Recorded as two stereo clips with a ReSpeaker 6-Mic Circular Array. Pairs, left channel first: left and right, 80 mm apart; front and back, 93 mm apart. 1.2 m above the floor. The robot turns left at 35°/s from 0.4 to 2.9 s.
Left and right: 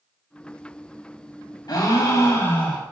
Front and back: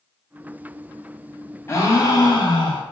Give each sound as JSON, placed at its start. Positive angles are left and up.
{"t": 1.7, "sound": "a gasp", "azimuth_deg": 60, "distance_m": 0.7}